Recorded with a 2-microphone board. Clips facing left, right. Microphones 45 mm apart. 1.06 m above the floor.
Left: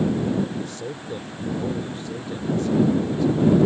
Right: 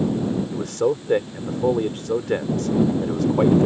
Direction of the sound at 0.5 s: 75° right (ahead or behind).